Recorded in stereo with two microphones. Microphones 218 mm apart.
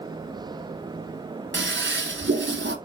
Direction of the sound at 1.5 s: 55° right (ahead or behind).